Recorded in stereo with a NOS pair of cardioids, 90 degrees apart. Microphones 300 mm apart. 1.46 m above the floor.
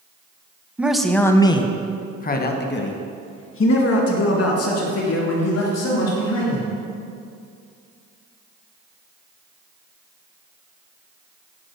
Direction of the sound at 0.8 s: 5° right.